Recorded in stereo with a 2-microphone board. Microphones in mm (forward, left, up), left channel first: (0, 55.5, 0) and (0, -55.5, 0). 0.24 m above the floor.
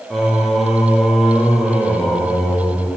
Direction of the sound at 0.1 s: Centre (ahead or behind).